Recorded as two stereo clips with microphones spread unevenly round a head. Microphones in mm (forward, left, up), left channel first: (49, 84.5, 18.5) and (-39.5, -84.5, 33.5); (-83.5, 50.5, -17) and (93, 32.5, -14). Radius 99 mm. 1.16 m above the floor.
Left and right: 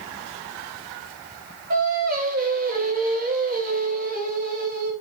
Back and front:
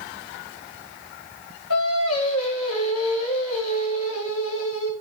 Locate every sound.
1.7 s singing: 160° right, 4.5 m